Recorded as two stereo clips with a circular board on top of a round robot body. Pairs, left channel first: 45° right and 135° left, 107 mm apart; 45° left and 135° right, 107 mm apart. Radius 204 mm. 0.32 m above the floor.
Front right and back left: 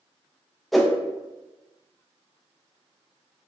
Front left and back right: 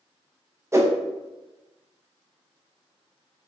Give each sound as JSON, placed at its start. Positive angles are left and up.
{"t": 0.7, "sound": "a whoosh", "azimuth_deg": -135, "distance_m": 0.7}